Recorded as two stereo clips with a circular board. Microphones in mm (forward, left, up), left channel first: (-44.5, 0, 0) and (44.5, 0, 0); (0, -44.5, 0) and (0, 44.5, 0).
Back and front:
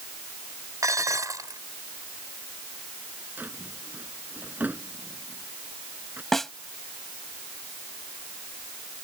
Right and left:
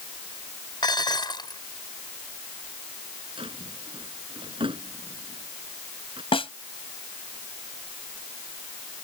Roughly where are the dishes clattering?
Ahead right.